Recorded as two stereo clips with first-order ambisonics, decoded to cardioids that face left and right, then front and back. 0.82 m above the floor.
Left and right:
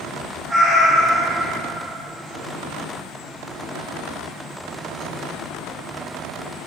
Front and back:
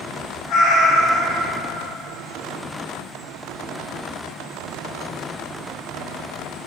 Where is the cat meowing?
10° right, 1.0 m.